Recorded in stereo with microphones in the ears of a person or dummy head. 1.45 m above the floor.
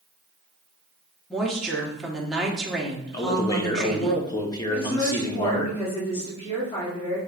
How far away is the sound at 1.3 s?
About 1.2 m.